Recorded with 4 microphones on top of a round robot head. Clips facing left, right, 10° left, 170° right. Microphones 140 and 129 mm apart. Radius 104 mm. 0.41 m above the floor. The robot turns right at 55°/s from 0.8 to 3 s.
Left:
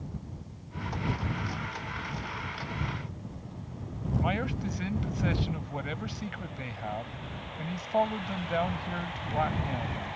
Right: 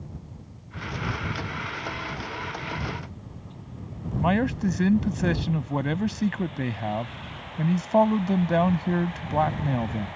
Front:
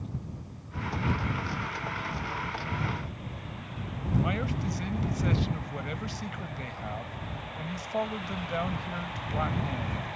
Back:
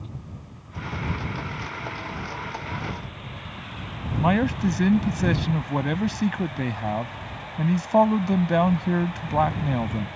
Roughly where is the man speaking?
Behind right.